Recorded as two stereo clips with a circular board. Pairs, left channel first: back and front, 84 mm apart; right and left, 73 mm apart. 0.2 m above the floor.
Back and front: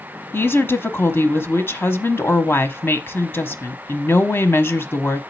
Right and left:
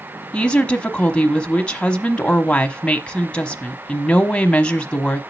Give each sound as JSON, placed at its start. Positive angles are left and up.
{"t": 0.3, "sound": "a woman speaking", "azimuth_deg": -150, "distance_m": 1.1}